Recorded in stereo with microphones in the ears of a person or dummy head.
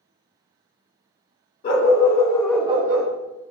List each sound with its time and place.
1.6 s a dog barking: 50° left (ahead or behind), 1.6 m; by 3.1 s 65° right (ahead or behind), 0.9 m